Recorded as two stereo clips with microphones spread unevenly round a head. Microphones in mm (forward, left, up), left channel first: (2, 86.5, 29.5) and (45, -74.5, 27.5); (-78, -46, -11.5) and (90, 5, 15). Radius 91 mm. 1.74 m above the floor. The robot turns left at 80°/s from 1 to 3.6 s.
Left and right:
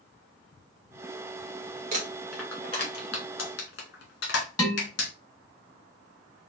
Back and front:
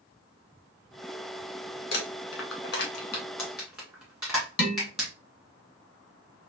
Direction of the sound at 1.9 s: 125° right.